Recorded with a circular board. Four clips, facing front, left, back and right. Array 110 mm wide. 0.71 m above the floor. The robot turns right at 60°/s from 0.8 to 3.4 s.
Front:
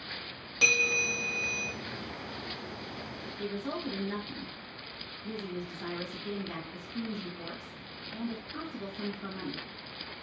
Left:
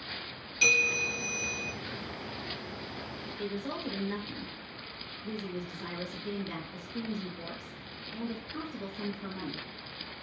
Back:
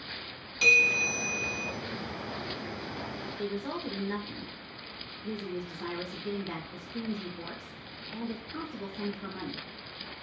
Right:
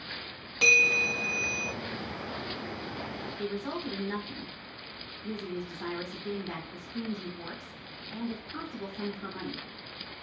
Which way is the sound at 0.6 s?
55° right.